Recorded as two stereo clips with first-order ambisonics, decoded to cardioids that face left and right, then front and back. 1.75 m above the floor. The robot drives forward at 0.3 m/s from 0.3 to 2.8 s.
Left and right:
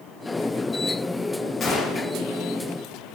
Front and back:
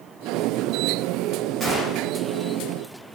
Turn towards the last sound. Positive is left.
turn(degrees=160)